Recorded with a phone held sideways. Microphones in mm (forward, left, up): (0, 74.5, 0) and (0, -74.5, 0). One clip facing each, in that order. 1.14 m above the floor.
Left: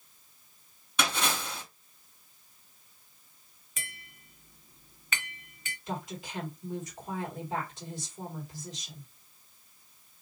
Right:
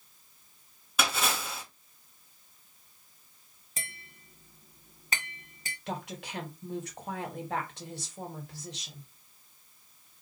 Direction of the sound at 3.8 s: 35° right (ahead or behind).